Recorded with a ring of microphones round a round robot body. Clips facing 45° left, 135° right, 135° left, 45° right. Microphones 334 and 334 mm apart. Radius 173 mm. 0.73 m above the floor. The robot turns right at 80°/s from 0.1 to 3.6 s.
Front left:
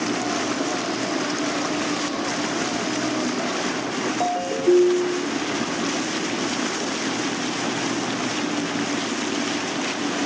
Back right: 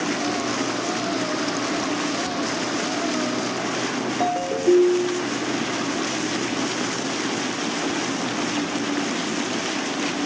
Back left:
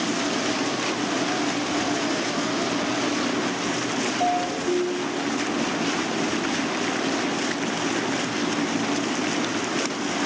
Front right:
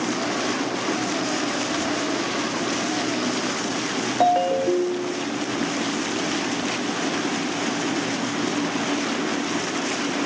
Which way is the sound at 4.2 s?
40° right.